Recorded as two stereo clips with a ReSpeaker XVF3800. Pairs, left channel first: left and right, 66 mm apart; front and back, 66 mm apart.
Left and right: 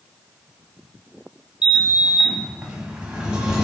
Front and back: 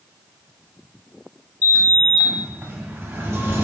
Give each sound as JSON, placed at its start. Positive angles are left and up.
{"t": 1.6, "sound": "a sliding door", "azimuth_deg": -160, "distance_m": 0.6}